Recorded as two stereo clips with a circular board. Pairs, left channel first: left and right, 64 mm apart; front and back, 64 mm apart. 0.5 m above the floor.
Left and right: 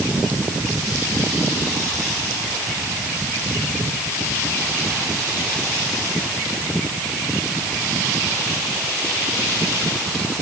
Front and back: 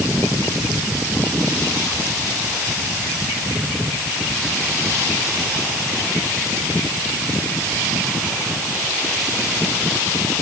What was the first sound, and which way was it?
Only background noise.